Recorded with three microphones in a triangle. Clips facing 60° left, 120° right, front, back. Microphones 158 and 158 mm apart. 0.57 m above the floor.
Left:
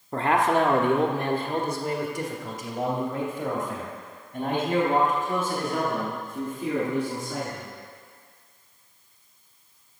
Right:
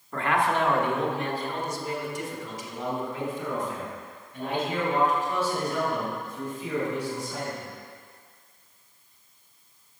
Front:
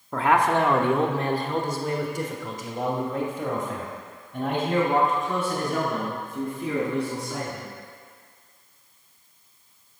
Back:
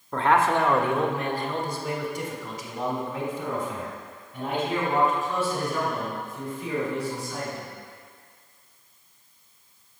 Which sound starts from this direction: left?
A man speaking, at 0.1 s.